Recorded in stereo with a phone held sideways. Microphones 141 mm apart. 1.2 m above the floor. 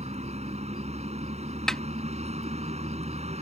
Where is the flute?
No flute in this recording.